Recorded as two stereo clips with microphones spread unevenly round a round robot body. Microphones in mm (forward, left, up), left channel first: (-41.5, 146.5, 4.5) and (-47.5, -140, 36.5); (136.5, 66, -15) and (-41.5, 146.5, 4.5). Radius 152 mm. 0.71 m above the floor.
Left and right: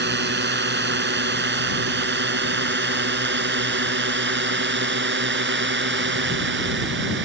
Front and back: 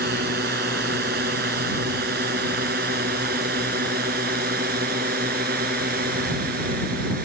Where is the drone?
145° right; by 7.2 s 140° right.